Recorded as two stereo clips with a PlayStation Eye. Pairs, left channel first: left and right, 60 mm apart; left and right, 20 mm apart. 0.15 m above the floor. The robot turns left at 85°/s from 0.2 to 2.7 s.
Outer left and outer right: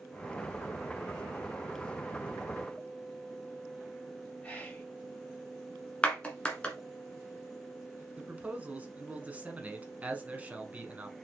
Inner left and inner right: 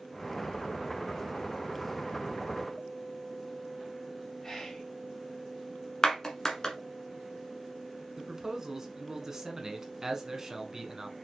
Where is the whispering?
15° left (ahead or behind), 1.2 m.